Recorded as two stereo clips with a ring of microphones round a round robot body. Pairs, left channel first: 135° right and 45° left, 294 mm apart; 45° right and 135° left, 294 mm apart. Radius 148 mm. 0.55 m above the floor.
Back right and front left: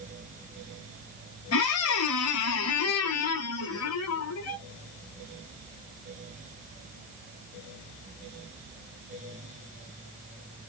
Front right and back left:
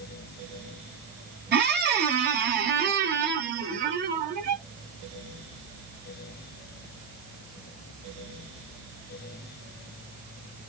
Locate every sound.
1.5 s a squeak: 170° right, 1.4 m